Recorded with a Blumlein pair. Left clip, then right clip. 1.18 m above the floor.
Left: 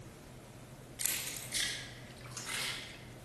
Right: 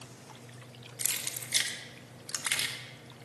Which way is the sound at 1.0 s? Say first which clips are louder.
Right 3 dB; 15° right.